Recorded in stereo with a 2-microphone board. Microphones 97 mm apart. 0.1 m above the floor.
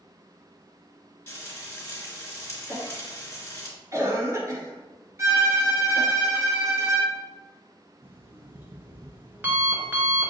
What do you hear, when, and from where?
1.3 s frying: 20° left (ahead or behind), 1.8 m
2.7 s a cough: 35° right (ahead or behind), 1.5 m
5.2 s a violin: 30° right (ahead or behind), 1.4 m
8.0 s an alarm clock: 20° right (ahead or behind), 0.8 m